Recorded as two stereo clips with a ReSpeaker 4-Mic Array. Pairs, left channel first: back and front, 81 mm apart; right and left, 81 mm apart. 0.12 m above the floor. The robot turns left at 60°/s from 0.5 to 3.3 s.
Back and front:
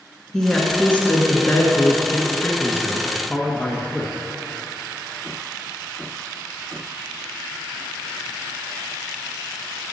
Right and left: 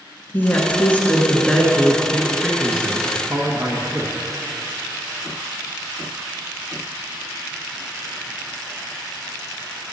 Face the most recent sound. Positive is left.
turn(degrees=130)